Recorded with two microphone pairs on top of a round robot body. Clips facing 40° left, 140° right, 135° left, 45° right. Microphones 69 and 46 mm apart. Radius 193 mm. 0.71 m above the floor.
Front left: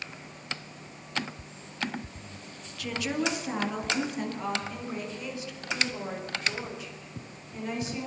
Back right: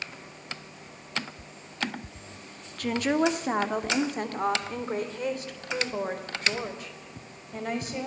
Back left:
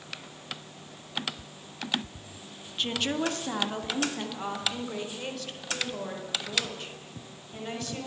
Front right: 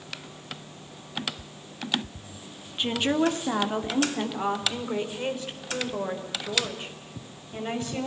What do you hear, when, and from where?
2.8 s a woman speaking: 115° right, 2.5 m; by 8.1 s 110° right, 6 m